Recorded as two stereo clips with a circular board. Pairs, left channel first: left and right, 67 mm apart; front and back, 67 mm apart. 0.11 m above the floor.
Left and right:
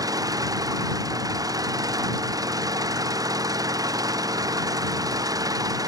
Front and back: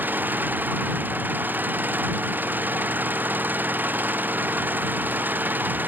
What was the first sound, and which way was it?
An engine running, 120° right.